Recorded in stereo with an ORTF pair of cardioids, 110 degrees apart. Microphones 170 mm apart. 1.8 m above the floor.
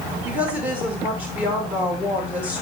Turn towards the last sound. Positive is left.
turn(degrees=-10)